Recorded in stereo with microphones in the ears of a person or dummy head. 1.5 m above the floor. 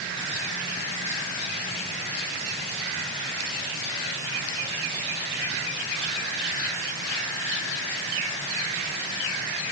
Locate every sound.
Only background noise.